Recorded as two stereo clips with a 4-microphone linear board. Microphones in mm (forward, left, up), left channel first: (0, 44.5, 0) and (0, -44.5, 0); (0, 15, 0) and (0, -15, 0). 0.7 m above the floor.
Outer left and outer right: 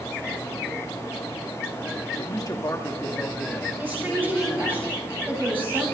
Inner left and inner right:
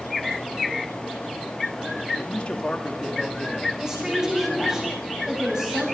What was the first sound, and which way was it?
A man speaking, 45° left (ahead or behind).